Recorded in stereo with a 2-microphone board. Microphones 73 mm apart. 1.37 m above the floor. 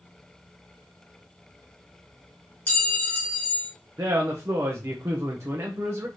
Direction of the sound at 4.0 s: 40° right (ahead or behind).